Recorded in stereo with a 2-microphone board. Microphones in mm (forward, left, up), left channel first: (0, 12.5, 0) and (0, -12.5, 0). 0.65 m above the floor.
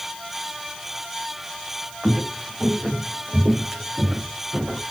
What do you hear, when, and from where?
2.0 s footsteps: 45° right (ahead or behind), 3.5 m; by 4.8 s 10° right (ahead or behind), 3 m